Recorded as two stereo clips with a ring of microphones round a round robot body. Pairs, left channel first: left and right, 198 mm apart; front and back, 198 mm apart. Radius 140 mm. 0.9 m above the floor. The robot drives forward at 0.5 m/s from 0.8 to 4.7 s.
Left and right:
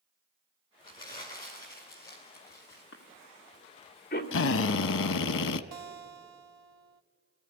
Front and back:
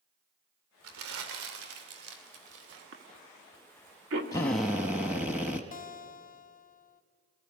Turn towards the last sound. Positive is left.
turn(degrees=-50)